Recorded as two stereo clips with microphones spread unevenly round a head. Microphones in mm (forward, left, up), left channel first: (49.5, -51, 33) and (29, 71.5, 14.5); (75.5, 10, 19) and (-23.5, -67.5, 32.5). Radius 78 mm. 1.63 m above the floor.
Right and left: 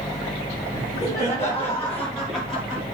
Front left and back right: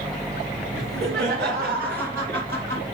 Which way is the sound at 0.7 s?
145° right.